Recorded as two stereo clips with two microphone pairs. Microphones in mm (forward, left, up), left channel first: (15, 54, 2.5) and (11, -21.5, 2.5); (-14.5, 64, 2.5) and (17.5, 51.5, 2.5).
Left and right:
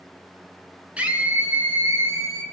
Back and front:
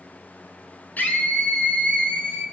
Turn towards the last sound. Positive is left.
turn(degrees=-145)